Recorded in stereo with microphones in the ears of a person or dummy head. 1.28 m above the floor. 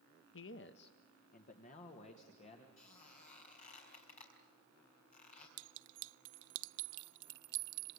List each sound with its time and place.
0.3 s a man speaking: 55° left (ahead or behind), 0.8 m; by 2.7 s 30° left (ahead or behind), 2.5 m
2.8 s a squeak: 35° left (ahead or behind), 5 m
5.6 s a clink: 65° right (ahead or behind), 0.6 m